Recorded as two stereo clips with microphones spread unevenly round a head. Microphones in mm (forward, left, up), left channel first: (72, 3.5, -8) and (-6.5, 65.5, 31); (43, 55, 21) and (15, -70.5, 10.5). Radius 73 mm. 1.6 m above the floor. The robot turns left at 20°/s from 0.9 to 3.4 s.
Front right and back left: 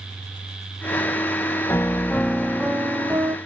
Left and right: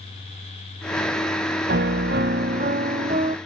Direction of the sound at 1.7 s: 120° right.